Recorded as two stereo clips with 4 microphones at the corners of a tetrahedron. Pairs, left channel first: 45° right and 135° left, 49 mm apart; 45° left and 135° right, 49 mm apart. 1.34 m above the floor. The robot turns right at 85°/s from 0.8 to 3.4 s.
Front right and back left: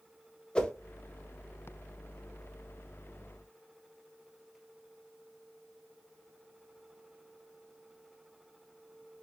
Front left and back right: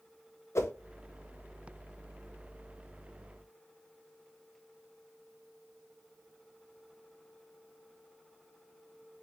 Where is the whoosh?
25° left, 0.8 m.